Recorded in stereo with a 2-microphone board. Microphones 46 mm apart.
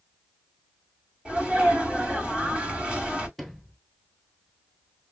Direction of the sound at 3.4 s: Centre (ahead or behind).